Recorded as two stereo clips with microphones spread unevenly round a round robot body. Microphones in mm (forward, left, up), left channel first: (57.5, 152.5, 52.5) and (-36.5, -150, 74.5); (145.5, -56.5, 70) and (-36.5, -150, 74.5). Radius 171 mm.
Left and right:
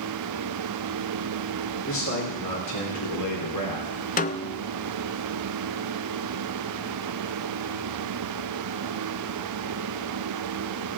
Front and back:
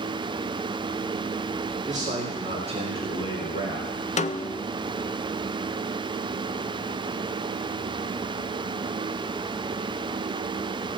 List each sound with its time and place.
1.9 s a man speaking: 120° left, 3.5 m; by 4.1 s 80° left, 3 m
4.2 s a snare drum: 35° left, 0.6 m